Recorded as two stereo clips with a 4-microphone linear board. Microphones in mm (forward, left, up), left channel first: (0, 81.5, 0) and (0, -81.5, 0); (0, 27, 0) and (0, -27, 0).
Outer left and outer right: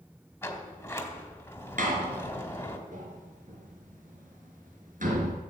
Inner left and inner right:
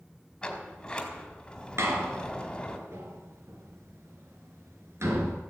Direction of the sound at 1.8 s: 55° right (ahead or behind).